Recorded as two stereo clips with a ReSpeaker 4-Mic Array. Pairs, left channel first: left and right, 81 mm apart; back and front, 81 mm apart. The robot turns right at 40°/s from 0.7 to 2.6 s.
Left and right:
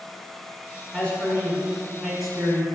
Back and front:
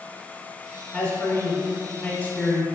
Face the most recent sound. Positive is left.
turn(degrees=-160)